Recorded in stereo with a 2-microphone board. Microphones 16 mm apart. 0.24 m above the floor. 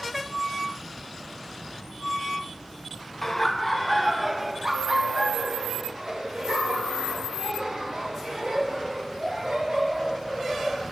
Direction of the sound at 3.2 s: 15° left (ahead or behind).